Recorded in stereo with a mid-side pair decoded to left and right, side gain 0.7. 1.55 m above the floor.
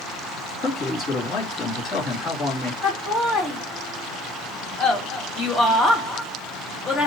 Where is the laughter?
30° left, 2.5 m.